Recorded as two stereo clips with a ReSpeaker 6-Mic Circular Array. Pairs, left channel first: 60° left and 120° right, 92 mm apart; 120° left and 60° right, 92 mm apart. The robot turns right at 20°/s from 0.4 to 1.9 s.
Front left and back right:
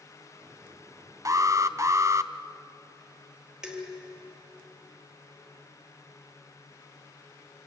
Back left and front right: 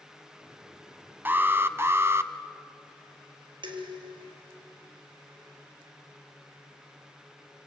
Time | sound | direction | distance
1.2 | an alarm | 115° right | 0.9 m
3.6 | dishes clattering | 40° right | 3 m